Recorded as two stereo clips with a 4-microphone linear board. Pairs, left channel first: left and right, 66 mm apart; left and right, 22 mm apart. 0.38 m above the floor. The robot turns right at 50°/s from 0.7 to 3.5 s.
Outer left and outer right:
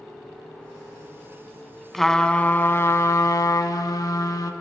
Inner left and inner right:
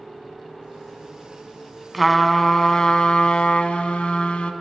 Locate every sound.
1.9 s a trumpet: straight ahead, 0.6 m; by 4.5 s 80° left, 0.6 m